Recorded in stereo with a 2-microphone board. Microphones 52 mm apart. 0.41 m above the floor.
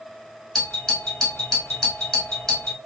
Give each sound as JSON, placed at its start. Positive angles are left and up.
{"t": 0.6, "sound": "a doorbell", "side_deg": 10, "distance_m": 1.4}